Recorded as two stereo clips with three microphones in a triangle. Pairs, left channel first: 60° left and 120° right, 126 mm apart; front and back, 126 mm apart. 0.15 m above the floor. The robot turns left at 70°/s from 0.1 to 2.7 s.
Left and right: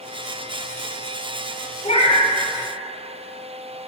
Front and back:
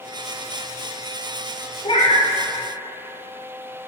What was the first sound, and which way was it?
A cat meowing, 40° left.